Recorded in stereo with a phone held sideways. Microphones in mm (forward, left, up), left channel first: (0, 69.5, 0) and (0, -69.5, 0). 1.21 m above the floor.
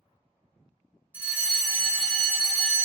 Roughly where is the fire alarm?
Centre.